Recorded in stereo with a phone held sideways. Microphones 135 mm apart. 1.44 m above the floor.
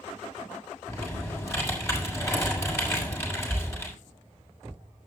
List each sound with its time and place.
0.9 s typing on a keyboard: 20° left (ahead or behind), 5.5 m